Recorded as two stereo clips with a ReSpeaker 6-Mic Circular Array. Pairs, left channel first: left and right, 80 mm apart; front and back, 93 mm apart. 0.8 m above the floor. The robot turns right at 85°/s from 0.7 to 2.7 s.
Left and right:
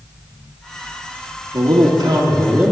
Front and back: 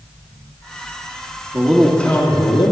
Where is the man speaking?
115° right, 1.7 m; by 2.7 s 20° right, 1.7 m.